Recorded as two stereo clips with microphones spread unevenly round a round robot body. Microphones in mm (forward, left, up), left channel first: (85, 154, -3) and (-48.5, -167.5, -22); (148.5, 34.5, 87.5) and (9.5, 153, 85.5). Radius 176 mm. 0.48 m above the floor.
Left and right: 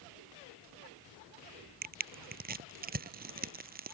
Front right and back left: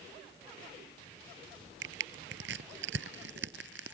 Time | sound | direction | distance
1.8 | crushing | straight behind | ?